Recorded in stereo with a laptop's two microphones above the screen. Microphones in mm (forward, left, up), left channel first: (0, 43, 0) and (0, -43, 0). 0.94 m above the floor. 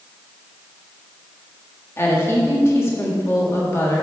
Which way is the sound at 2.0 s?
30° left (ahead or behind).